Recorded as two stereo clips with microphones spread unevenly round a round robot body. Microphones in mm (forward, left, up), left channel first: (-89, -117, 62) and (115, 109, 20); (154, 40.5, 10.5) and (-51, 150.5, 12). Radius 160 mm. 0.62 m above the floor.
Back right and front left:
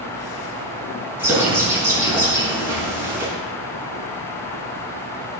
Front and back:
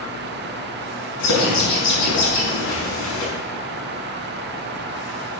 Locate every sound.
1.2 s a bird: 35° right, 5.5 m